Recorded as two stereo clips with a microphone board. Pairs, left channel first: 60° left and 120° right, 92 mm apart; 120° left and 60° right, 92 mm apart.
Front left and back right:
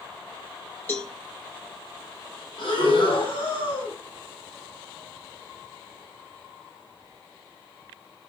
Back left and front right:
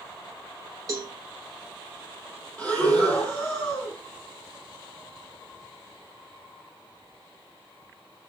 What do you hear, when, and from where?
0.9 s a cowbell: 5° right, 1.7 m
2.6 s breathing: 50° left, 7.5 m